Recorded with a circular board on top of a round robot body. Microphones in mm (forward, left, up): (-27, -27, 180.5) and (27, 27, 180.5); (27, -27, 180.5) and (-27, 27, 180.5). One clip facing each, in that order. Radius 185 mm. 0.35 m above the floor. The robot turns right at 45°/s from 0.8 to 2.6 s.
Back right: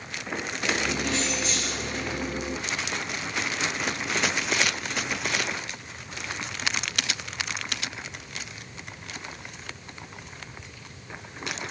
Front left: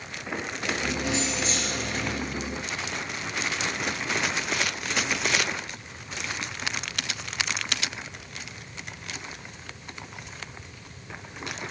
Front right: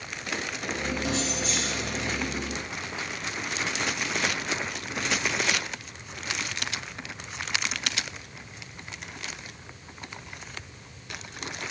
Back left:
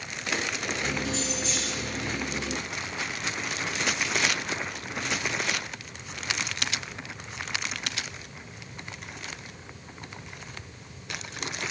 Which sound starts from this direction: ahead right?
Keys jangling, at 1.1 s.